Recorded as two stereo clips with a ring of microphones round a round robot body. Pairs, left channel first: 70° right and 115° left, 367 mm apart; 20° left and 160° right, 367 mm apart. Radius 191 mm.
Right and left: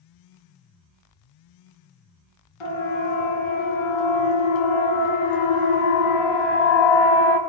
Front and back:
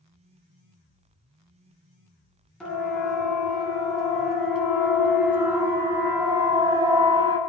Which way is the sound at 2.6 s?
65° right.